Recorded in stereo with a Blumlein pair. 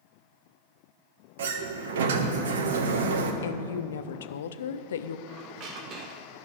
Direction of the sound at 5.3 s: 35° right.